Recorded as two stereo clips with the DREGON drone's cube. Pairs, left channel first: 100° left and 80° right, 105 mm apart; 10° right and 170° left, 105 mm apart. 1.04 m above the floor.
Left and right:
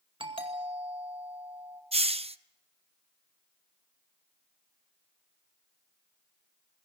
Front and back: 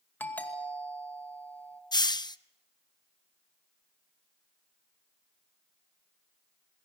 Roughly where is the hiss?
Ahead right.